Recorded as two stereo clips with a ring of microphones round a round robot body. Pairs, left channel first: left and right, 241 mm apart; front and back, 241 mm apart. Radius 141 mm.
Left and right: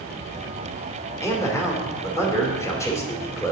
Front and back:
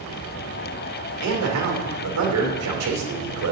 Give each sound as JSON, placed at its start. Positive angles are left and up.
{"t": 1.2, "sound": "a man speaking", "azimuth_deg": 170, "distance_m": 2.0}